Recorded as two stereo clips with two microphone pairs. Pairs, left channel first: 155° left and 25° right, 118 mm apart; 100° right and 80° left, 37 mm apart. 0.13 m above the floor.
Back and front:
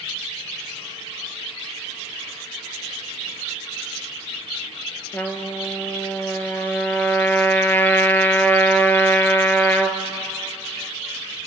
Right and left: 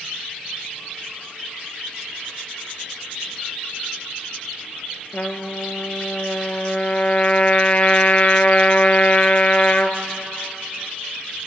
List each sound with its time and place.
5.1 s a trumpet: 135° right, 1.4 m